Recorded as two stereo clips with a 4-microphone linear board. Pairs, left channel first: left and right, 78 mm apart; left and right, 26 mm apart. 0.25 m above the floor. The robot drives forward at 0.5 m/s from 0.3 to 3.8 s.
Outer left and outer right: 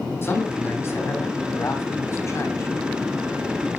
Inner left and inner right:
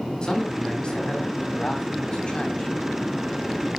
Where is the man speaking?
35° left (ahead or behind), 2.5 m; by 2.7 s 40° left (ahead or behind), 2 m.